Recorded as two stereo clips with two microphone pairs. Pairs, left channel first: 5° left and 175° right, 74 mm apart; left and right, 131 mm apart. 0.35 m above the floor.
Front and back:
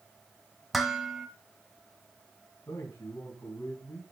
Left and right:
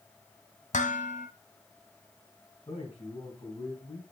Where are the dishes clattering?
95° left, 1.5 m.